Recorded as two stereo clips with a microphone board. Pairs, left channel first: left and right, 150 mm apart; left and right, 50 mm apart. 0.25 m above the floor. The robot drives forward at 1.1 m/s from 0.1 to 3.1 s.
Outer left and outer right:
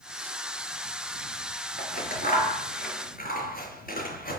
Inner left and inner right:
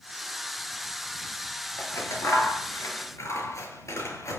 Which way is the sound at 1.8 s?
60° left (ahead or behind).